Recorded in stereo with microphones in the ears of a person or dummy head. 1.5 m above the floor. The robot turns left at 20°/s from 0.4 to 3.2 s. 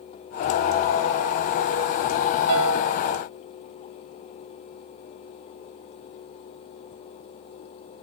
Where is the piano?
80° right, 2.5 m; by 2.9 s 75° right (ahead or behind), 2.5 m.